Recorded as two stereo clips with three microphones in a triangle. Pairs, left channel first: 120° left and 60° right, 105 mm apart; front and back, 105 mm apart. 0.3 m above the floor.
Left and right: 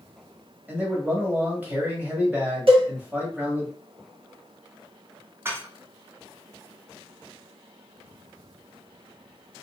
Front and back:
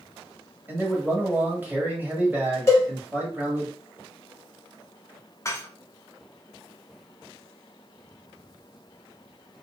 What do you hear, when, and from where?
0.7 s a man speaking: 120° right, 1.2 m
2.7 s a cowbell: 60° right, 1.3 m
5.5 s dishes clattering: 25° right, 0.6 m